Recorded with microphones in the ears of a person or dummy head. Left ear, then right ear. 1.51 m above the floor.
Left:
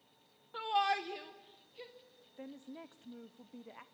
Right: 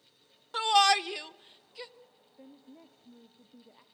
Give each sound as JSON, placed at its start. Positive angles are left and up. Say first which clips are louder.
{"t": 0.5, "sound": "a shout", "louder": "right 9 dB", "side_deg": -65, "distance_m": 0.7}
{"t": 2.4, "sound": "a woman speaking", "louder": "left 5 dB", "side_deg": 45, "distance_m": 0.8}